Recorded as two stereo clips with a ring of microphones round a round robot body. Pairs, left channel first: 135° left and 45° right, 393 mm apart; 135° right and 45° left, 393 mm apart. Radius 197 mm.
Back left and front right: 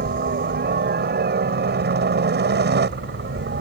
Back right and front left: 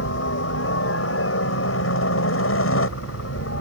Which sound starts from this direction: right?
A helicopter, at 0.0 s.